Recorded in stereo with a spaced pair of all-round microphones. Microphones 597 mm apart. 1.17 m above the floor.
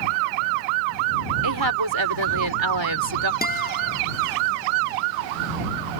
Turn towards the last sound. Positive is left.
turn(degrees=15)  # may be behind; listen again after turning